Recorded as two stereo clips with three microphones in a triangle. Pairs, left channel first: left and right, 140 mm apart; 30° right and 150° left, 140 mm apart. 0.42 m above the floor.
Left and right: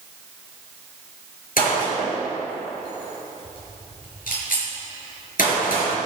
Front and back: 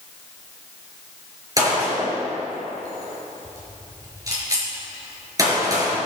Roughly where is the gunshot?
Left.